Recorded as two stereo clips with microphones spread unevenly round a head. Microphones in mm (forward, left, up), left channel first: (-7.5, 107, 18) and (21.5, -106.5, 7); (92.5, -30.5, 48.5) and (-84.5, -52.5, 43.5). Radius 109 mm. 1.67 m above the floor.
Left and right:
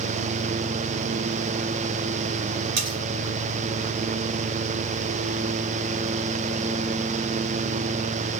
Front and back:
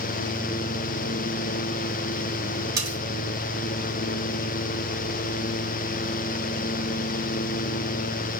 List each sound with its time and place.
2.8 s cutlery clinking: 100° right, 2.5 m